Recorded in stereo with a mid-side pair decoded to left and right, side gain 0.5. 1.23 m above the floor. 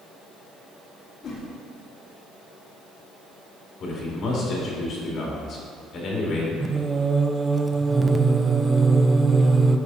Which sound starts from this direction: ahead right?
Singing, at 6.6 s.